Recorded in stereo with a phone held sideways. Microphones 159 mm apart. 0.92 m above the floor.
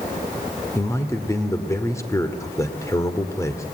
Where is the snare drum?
I don't hear a snare drum.